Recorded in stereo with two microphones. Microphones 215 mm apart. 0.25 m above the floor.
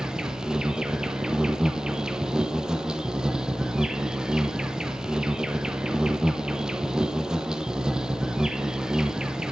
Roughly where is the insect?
Centre.